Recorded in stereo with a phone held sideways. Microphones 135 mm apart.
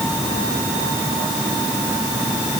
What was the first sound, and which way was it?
Only background noise.